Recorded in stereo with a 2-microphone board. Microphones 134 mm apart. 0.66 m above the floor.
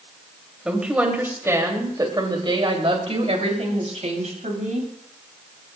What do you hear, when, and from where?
0.7 s a woman speaking: 5° right (ahead or behind), 3 m; by 4.9 s 70° right (ahead or behind), 4.5 m